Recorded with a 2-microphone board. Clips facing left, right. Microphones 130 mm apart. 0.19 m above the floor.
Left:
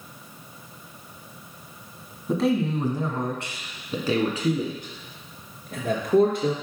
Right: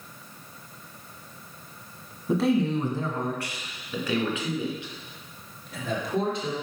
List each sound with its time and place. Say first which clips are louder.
2.3 s a man speaking: even; 5° right (ahead or behind), 1.6 m; by 6.5 s 55° left (ahead or behind), 4 m